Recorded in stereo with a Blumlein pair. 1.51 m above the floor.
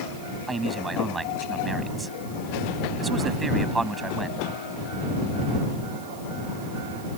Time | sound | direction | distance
0.5 | a man speaking | 15° right | ?